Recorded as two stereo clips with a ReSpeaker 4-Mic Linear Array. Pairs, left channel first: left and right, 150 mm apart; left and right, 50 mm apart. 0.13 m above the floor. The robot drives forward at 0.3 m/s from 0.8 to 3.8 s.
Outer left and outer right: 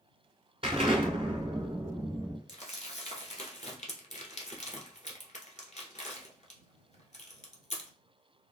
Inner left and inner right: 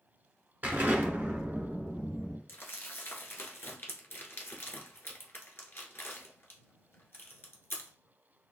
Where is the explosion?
40° right (ahead or behind), 1.1 m; by 2.4 s 35° right (ahead or behind), 1.2 m.